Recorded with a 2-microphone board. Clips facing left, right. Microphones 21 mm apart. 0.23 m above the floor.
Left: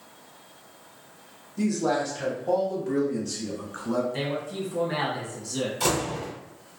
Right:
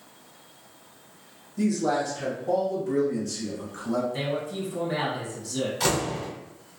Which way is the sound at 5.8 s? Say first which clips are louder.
Even; 25° right (ahead or behind).